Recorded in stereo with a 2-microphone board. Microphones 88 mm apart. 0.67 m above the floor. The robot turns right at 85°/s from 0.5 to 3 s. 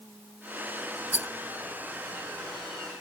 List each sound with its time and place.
1.1 s a rattle: 20° right (ahead or behind); by 1.3 s 30° right (ahead or behind)